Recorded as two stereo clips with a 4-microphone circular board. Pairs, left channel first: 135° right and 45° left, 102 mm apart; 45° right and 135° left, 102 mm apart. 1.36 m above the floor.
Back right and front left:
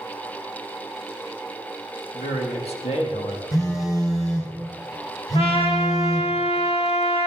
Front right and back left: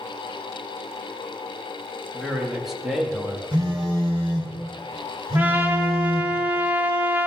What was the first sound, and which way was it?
A man speaking, 140° right.